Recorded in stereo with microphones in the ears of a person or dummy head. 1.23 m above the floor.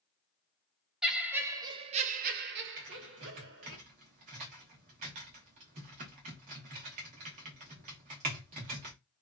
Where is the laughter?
Centre (ahead or behind), 0.9 m; by 3.8 s 85° right, 1.2 m.